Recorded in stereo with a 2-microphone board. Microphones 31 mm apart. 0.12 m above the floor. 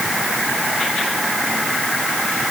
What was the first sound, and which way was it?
Only background noise.